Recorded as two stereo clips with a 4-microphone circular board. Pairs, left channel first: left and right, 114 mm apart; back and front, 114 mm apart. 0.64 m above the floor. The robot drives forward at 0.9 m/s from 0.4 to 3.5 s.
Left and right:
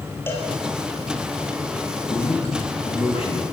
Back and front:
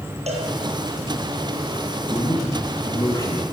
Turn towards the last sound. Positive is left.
turn(degrees=125)